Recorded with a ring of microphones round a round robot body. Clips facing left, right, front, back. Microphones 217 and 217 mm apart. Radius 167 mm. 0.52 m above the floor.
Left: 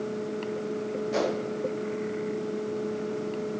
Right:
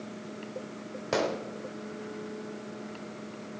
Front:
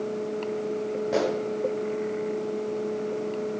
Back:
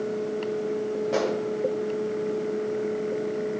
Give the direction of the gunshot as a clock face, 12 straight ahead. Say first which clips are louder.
Left 1 dB, front 1 dB; 3 o'clock.